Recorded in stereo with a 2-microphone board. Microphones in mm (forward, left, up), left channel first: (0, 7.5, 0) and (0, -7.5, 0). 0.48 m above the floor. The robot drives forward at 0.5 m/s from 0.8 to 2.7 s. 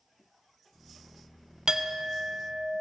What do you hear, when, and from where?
1.7 s a clink: 55° right (ahead or behind), 0.7 m; by 2.8 s 45° right (ahead or behind), 0.8 m